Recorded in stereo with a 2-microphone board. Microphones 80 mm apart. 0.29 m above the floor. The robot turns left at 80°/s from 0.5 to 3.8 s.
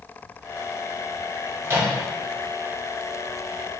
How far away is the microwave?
About 1.6 m.